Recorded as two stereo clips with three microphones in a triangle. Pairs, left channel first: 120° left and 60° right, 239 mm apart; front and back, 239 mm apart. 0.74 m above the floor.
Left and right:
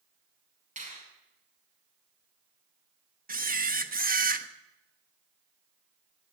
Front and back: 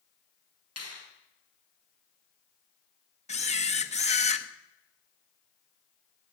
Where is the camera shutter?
40° right, 1.0 m.